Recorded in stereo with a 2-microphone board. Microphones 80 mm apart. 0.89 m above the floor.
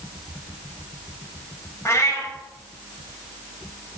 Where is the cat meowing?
35° left (ahead or behind), 1.0 m.